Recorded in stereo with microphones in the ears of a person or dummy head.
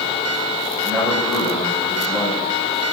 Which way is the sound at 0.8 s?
5° left (ahead or behind).